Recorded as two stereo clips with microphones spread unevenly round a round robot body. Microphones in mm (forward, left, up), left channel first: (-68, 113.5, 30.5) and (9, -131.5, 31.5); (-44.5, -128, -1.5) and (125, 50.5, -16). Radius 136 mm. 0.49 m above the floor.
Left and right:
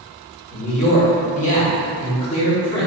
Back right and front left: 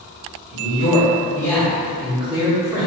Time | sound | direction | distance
0.5 | a man speaking | 165° left | 1.6 m